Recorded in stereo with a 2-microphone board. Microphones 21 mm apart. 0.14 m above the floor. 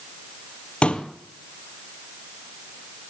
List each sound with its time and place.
0.8 s a pop: 60° left (ahead or behind), 1.7 m